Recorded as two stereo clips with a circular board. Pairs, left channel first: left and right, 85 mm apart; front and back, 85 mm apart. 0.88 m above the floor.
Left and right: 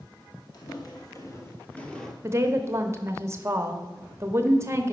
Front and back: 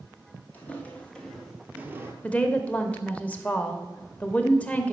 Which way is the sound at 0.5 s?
65° left.